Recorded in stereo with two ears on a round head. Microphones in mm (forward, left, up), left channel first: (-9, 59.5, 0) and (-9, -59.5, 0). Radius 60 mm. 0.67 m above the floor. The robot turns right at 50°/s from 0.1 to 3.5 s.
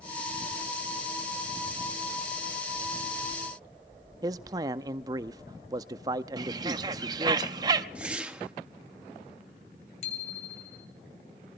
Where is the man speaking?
30° right (ahead or behind), 0.6 m.